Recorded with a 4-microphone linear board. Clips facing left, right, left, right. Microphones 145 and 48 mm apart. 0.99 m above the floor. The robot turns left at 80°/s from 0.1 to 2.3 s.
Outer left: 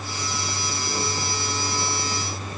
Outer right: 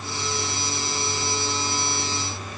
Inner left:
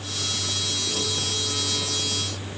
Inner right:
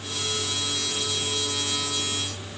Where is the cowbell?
No cowbell in this recording.